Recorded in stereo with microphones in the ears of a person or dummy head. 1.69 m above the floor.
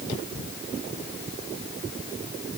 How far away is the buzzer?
No buzzer in this recording.